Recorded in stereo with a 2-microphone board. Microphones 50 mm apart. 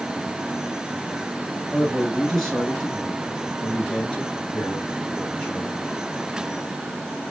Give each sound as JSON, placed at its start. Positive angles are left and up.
{"t": 1.7, "sound": "a man speaking", "side_deg": -5, "distance_m": 1.4}